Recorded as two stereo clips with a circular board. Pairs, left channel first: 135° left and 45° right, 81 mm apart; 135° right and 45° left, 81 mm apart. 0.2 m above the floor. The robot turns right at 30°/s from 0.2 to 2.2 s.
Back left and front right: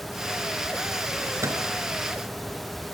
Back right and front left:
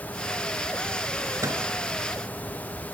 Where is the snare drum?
No snare drum in this recording.